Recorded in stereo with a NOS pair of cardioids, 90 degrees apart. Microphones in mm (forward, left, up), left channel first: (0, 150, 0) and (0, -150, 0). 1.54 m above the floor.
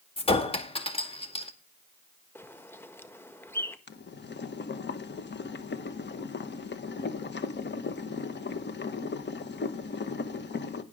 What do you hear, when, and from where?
0.2 s a clink: 20° left, 1.9 m
2.4 s a bird: 10° left, 1.4 m
3.9 s boiling: 35° left, 1.6 m